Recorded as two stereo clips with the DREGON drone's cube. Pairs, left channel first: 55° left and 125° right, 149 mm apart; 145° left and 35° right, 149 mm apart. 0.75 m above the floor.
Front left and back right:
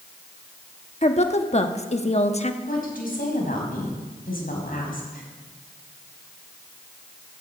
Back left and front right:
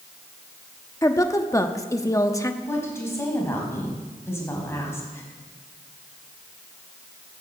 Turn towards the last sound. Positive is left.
turn(degrees=70)